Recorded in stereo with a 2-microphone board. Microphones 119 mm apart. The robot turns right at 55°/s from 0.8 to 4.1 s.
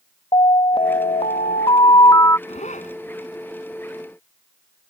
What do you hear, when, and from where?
0.3 s an alarm: 65° left; by 2.4 s 150° left
2.5 s a zipper: 60° left (ahead or behind); by 3.0 s 85° left